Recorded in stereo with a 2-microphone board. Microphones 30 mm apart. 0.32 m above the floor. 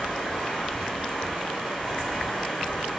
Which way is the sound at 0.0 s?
5° left (ahead or behind).